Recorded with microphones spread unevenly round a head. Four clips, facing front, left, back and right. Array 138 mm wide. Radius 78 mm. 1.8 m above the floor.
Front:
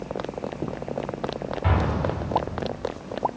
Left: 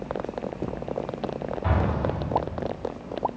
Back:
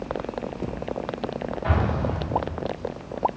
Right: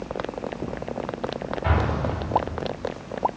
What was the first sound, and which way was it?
An explosion, 10° right.